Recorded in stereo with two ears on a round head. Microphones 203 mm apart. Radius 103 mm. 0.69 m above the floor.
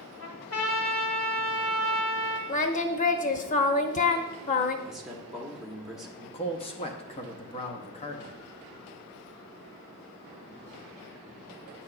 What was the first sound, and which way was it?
A trumpet, 70° left (ahead or behind).